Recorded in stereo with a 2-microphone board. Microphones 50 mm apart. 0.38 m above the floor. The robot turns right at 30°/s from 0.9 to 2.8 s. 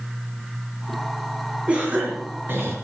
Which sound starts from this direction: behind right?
A cough, at 1.7 s.